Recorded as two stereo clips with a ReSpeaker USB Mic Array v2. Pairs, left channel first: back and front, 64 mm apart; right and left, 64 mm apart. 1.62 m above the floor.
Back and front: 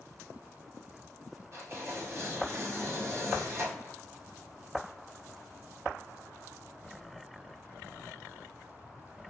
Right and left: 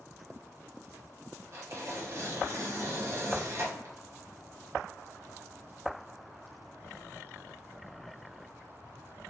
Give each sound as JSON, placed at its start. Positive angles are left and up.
{"t": 1.5, "sound": "tearing paper", "azimuth_deg": 45, "distance_m": 1.0}